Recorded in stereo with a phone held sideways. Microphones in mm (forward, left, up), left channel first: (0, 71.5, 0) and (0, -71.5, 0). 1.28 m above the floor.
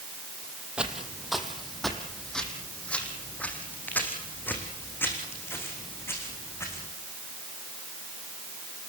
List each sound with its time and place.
0.8 s footsteps: 5° right (ahead or behind), 2.5 m; by 6.9 s 20° left (ahead or behind), 6 m